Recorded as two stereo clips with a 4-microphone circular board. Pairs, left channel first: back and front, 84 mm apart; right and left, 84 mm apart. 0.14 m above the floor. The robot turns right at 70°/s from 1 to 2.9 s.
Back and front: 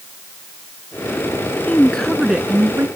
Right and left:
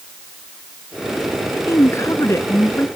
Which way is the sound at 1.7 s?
120° right.